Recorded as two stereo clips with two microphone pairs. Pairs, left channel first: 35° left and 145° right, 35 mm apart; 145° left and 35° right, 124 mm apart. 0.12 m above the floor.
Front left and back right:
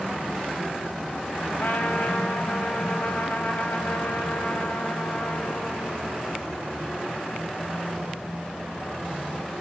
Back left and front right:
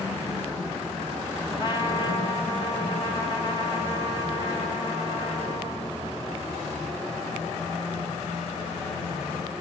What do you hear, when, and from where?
1.6 s a trumpet: 90° left, 4.5 m